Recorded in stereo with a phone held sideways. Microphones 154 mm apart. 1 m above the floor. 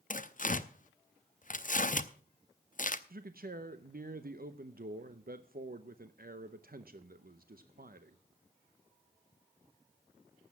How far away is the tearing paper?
About 0.6 m.